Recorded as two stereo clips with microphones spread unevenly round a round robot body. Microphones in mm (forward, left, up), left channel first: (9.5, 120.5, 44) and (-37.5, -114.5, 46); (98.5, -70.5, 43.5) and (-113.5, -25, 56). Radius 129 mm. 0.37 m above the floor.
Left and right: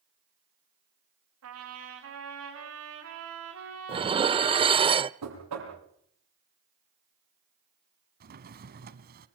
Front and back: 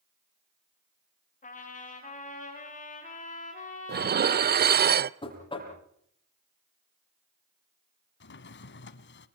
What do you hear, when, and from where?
1.4 s a trumpet: 65° right, 9 m
3.9 s dishes clattering: 165° right, 0.6 m
5.2 s knocking: 80° right, 9.5 m
8.2 s a drawer: 50° right, 1.4 m